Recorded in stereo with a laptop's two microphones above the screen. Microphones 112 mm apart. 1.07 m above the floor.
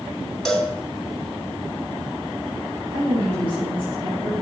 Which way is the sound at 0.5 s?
5° left (ahead or behind).